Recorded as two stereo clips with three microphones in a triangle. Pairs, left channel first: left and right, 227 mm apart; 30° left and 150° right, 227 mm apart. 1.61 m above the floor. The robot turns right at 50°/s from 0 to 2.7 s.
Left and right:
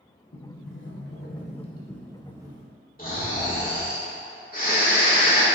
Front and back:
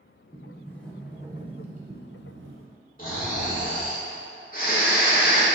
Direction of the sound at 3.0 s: 60° left.